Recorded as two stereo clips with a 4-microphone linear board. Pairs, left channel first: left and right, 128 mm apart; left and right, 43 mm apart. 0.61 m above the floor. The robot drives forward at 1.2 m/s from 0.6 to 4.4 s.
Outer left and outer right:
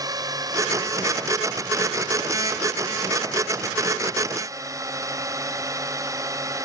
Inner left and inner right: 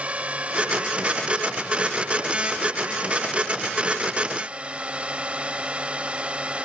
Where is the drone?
30° right (ahead or behind); by 6.7 s 25° right (ahead or behind).